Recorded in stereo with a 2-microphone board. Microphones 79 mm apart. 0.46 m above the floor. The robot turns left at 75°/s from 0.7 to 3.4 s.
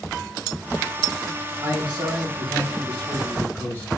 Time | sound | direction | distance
1.6 | a man speaking | 70° right | 3.5 m